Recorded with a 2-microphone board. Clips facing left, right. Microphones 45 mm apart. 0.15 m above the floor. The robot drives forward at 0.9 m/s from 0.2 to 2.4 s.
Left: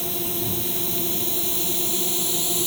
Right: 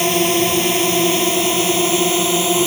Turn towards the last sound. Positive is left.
turn(degrees=-60)  # may be behind; listen again after turning